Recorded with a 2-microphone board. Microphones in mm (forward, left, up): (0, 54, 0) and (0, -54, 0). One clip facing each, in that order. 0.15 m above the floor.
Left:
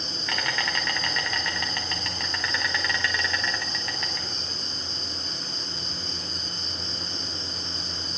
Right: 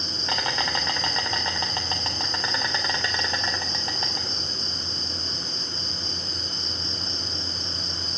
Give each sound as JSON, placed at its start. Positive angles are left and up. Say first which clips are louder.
{"t": 0.0, "sound": "an insect", "louder": "right 2 dB", "side_deg": -30, "distance_m": 1.7}